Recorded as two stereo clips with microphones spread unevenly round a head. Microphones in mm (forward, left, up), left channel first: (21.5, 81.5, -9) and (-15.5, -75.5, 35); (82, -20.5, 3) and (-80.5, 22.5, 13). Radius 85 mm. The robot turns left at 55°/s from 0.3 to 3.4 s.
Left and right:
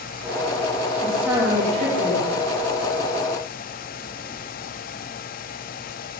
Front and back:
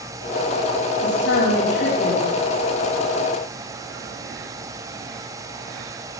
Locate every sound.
1.0 s a woman speaking: 5° right, 6.5 m; by 2.3 s 75° right, 6.5 m